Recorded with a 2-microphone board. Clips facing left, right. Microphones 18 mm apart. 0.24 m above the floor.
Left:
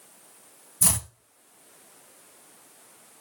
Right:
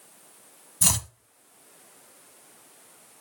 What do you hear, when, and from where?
0.8 s chopping: 45° right (ahead or behind), 0.7 m